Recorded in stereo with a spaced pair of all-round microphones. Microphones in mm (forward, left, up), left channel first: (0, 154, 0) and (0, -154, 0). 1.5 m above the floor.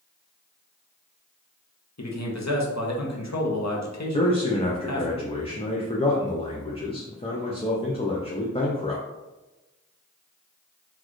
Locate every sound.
2.0 s a man speaking: 60° left (ahead or behind), 0.8 m
4.1 s a man speaking: 20° left (ahead or behind), 0.5 m